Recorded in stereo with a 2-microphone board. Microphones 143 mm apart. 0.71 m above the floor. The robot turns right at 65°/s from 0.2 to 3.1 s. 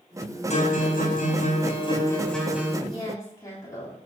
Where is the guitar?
55° left, 4 m; by 2.8 s 160° right, 4 m.